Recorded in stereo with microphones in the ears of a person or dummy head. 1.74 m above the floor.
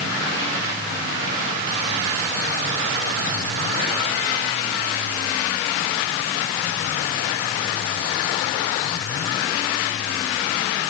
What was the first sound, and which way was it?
Only background noise.